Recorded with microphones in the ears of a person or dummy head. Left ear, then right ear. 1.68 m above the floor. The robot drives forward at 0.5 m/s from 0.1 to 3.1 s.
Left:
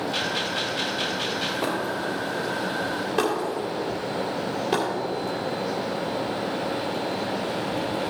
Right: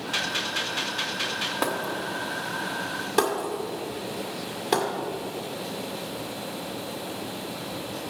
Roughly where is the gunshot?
Right.